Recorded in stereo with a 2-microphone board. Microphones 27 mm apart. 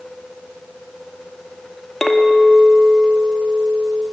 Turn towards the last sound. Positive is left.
turn(degrees=10)  # may be behind; listen again after turning